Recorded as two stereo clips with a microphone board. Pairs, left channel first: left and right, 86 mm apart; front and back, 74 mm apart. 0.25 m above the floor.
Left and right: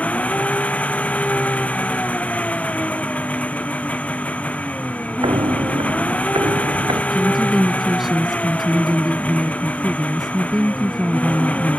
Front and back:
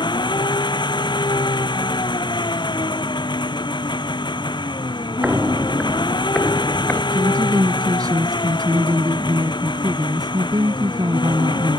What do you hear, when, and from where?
0.0 s an engine running: 15° left
5.2 s footsteps: 110° right; by 7.0 s 70° right
7.1 s a woman speaking: 175° right